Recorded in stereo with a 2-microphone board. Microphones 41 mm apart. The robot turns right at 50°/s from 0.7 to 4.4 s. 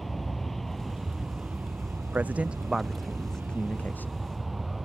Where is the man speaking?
45° right (ahead or behind); by 4.1 s 55° left (ahead or behind).